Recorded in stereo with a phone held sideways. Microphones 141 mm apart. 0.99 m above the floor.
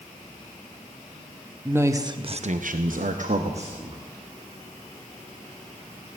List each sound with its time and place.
1.6 s a man speaking: 15° right (ahead or behind), 1.2 m; by 4.0 s 45° right (ahead or behind), 1.7 m